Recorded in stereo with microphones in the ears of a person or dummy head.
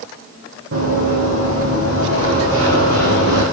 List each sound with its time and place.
0.7 s running footsteps: 60° right (ahead or behind), 3.5 m; by 3.4 s 70° right (ahead or behind), 4.5 m